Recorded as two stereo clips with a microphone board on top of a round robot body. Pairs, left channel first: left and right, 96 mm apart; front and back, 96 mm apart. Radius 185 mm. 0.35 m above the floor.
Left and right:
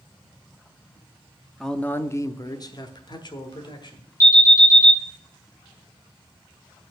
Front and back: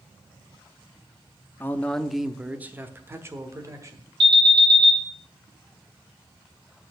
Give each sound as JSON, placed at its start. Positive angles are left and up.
{"t": 1.6, "sound": "a man speaking", "azimuth_deg": 10, "distance_m": 0.9}
{"t": 4.2, "sound": "an alarm", "azimuth_deg": 145, "distance_m": 4.5}